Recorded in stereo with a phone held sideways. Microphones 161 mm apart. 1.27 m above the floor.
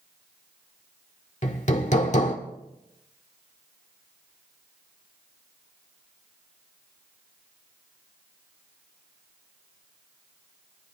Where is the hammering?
50° left (ahead or behind), 1.3 m.